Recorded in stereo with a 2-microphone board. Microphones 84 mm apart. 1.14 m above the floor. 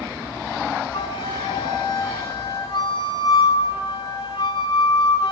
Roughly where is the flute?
Left.